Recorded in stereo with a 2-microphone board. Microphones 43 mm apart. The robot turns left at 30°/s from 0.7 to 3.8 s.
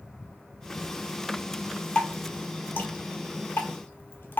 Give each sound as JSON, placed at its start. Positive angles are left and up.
{"t": 1.9, "sound": "dripping", "side_deg": 35, "distance_m": 0.6}